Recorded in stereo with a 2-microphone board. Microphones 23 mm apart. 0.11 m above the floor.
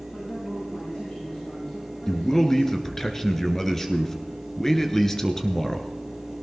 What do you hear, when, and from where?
0.1 s a man speaking: 50° left (ahead or behind), 9 m
2.1 s a man speaking: 20° left (ahead or behind), 1.4 m